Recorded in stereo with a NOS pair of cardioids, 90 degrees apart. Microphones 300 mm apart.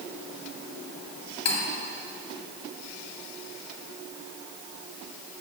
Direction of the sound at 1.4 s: 55° left.